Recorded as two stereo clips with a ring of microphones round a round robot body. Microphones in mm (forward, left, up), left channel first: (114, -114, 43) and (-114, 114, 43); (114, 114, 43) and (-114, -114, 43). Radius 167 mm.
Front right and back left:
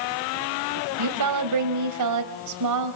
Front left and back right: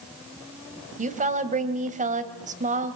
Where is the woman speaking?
160° left, 3 m.